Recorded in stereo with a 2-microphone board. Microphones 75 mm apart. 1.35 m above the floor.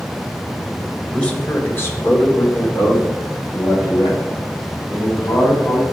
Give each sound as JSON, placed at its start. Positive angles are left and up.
{"t": 1.1, "sound": "a man speaking", "side_deg": 15, "distance_m": 1.4}